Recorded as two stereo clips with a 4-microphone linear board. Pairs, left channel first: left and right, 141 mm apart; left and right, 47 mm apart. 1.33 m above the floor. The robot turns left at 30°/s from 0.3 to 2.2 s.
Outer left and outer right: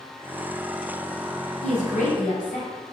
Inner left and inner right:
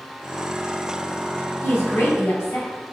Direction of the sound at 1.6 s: 55° left (ahead or behind).